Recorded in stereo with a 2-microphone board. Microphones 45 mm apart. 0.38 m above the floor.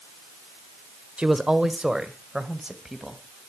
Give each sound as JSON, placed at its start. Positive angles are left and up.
{"t": 1.2, "sound": "a man speaking", "side_deg": -20, "distance_m": 1.1}